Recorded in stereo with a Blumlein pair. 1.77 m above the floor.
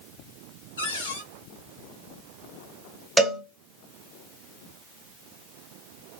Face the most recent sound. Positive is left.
turn(degrees=-5)